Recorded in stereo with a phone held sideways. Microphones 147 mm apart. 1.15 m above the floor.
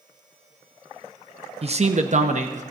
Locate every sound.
1.6 s a man speaking: 45° right (ahead or behind), 0.9 m; by 2.6 s 55° right (ahead or behind), 1.2 m